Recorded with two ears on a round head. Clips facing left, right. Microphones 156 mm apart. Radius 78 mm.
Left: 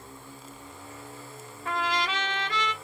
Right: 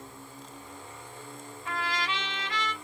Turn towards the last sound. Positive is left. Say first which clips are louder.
# left 4 dB
turn(degrees=40)  # may be behind; listen again after turning